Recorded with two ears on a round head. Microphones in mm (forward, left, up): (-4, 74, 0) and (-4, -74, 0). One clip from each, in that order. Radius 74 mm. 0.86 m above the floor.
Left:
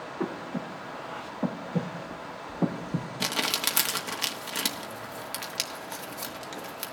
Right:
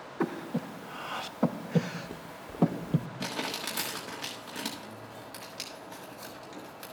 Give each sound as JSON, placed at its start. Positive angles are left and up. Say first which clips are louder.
{"t": 0.2, "sound": "breathing", "louder": "right 2 dB", "side_deg": -75, "distance_m": 0.6}
{"t": 3.2, "sound": "crumpling", "louder": "left 9 dB", "side_deg": 55, "distance_m": 1.2}